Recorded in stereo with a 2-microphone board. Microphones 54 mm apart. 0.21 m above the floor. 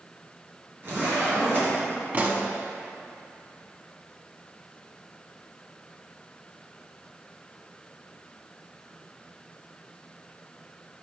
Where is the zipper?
40° right (ahead or behind), 2.5 m.